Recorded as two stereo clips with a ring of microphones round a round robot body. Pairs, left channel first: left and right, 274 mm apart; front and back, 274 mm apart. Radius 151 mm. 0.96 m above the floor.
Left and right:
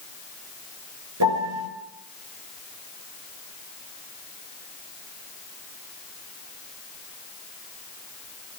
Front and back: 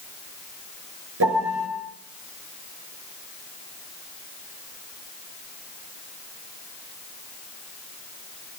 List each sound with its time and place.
1.2 s a piano: 130° right, 6 m